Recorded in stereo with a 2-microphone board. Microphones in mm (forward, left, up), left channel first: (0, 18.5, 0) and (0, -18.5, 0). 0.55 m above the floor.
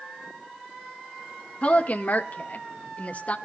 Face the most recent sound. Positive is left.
turn(degrees=40)  # may be behind; listen again after turning